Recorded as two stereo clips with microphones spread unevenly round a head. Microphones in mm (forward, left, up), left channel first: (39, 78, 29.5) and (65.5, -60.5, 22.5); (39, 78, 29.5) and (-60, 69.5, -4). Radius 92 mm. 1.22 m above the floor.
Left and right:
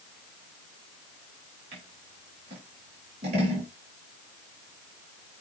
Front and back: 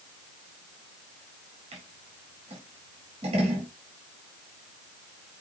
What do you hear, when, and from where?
1.7 s scissors: 135° right, 4 m